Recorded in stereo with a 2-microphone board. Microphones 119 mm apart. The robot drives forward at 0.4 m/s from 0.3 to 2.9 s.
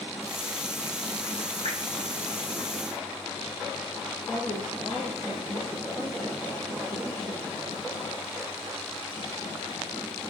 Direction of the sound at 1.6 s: 60° right (ahead or behind).